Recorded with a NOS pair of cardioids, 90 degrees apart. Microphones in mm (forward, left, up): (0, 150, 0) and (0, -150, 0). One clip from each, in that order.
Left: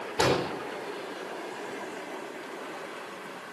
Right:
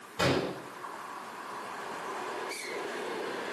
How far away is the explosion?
About 4 m.